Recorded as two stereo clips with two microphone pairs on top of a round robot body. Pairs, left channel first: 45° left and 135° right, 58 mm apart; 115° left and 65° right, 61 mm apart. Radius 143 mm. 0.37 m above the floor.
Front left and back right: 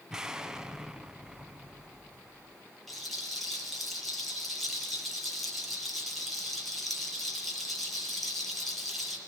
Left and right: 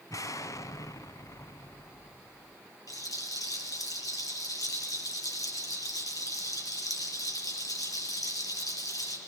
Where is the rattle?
130° left, 8.5 m.